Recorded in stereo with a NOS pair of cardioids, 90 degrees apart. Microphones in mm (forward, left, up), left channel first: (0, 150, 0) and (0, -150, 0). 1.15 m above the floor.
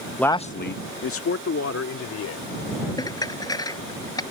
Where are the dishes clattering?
10° left.